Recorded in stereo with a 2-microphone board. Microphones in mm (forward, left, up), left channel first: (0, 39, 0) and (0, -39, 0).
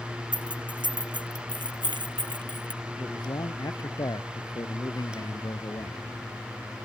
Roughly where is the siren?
I don't hear a siren.